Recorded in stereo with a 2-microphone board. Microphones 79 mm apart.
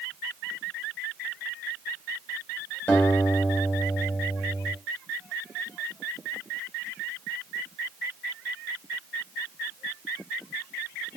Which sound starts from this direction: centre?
A guitar, at 2.9 s.